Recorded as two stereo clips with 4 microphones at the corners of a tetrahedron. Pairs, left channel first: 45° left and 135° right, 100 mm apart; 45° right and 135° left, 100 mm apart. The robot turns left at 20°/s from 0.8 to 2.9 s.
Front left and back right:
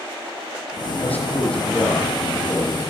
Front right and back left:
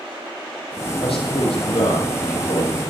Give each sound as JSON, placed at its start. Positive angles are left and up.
{"t": 1.0, "sound": "a man speaking", "azimuth_deg": -25, "distance_m": 4.5}